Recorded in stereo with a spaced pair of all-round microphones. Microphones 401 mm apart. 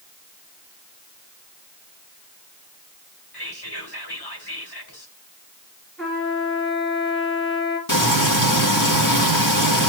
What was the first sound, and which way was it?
Whispering, 75° left (ahead or behind).